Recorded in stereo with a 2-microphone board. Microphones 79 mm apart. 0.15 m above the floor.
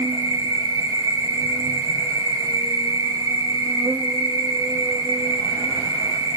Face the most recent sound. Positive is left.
turn(degrees=-55)  # may be behind; listen again after turning